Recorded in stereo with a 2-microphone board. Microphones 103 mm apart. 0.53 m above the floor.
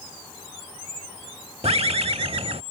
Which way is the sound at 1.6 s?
70° right (ahead or behind).